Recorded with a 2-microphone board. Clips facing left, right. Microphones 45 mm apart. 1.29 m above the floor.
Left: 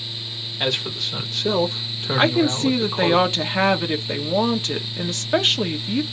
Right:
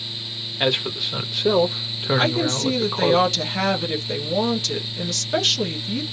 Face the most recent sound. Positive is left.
turn(degrees=25)  # may be behind; listen again after turning